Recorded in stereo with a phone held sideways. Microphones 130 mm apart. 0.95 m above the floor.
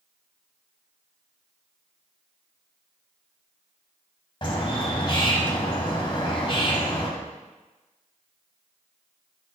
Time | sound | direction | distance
4.4 | a bird | 40° left (ahead or behind) | 1.1 m